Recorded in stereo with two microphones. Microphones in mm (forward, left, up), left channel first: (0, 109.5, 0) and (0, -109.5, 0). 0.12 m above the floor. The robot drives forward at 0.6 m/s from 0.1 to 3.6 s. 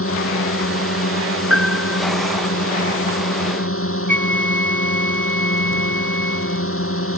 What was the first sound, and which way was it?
A drone, 70° left (ahead or behind).